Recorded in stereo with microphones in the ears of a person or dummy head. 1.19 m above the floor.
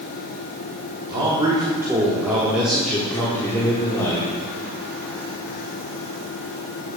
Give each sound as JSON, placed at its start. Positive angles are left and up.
{"t": 1.1, "sound": "a man speaking", "side_deg": -25, "distance_m": 3.5}